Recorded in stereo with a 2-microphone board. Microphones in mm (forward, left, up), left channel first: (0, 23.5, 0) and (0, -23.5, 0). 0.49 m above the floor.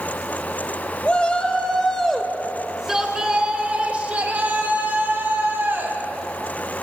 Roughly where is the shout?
Left.